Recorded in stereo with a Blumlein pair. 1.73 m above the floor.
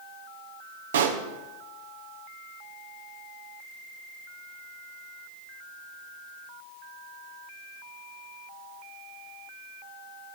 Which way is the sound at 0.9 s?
60° right.